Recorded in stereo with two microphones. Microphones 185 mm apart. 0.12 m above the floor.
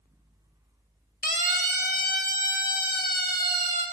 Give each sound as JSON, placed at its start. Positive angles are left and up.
{"t": 1.2, "sound": "a siren", "side_deg": 50, "distance_m": 4.0}